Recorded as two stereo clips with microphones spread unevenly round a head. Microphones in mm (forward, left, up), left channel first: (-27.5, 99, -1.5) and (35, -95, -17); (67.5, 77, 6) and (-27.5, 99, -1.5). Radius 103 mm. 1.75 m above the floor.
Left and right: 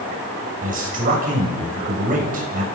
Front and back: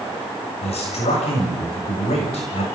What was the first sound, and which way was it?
A man speaking, 20° right.